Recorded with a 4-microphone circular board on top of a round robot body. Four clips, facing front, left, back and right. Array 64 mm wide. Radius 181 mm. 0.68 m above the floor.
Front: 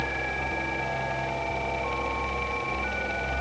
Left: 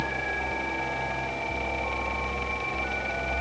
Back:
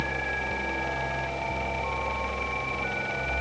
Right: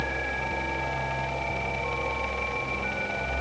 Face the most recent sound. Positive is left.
No sound to turn to.